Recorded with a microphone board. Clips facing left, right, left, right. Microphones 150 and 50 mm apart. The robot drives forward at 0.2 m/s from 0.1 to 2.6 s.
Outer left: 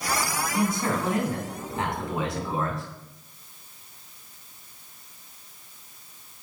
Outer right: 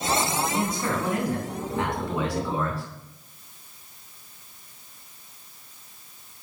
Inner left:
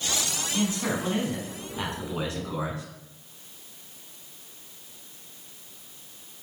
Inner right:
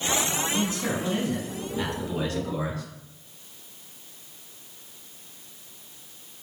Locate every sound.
0.5 s a man speaking: 25° left (ahead or behind), 1.3 m; by 2.9 s 20° left (ahead or behind), 1.4 m